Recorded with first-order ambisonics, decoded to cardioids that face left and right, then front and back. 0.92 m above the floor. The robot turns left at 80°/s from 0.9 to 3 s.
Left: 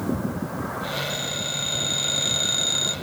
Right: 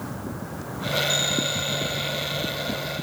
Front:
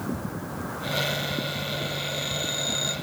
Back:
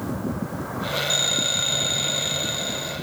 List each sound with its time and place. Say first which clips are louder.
1.1 s a phone ringing: right 4 dB, back 7 dB; 150° right; by 3.0 s 65° left